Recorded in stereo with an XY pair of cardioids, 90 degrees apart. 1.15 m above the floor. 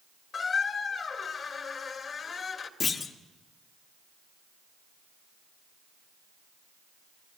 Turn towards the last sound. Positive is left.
turn(degrees=60)